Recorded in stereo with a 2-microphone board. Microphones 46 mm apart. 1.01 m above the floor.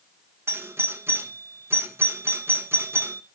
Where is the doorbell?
55° right (ahead or behind), 1.0 m.